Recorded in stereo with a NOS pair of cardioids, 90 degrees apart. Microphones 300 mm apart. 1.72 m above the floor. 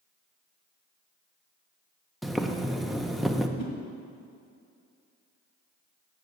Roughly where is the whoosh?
Ahead left.